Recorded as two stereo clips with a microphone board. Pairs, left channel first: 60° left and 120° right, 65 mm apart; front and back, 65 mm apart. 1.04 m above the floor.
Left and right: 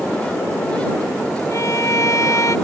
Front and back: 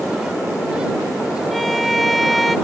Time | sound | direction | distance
1.5 | a violin | 90° left | ?